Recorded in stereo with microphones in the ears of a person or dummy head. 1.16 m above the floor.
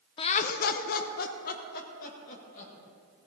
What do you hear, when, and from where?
0.2 s laughter: 25° left (ahead or behind), 0.5 m; by 2.7 s 45° left (ahead or behind), 2.0 m